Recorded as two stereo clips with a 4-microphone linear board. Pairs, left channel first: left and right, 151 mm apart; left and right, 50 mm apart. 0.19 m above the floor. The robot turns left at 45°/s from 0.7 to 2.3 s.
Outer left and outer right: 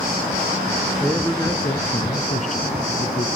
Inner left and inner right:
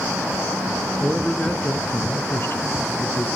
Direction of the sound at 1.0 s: 175° left.